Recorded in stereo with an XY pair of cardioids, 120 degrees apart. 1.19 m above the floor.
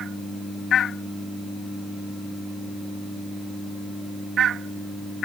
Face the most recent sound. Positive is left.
No sound to turn to.